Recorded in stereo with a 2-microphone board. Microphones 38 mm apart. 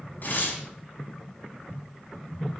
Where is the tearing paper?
55° left (ahead or behind), 4 m.